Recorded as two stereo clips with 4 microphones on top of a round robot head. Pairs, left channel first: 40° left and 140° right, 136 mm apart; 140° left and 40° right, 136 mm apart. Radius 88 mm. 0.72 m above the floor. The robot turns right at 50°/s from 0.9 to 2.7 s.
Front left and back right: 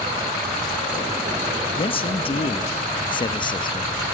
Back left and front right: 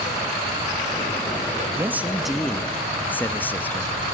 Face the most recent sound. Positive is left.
turn(degrees=70)